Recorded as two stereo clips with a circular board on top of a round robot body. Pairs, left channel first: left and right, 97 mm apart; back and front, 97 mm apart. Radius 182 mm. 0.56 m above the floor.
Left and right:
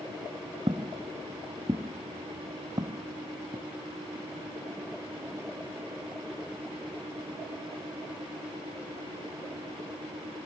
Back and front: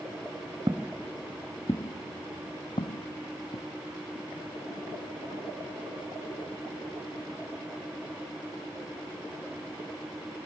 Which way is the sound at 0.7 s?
50° right.